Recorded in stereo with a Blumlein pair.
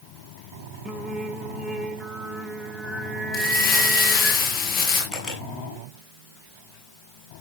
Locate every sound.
0.8 s singing: 10° right, 1.7 m
3.3 s crumpling: 20° left, 5.5 m
5.1 s a camera shutter: 5° left, 7 m